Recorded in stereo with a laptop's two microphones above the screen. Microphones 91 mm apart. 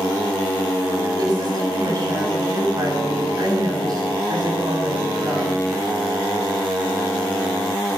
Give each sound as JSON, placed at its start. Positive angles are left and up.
{"t": 1.2, "sound": "a woman speaking", "side_deg": -45, "distance_m": 7.0}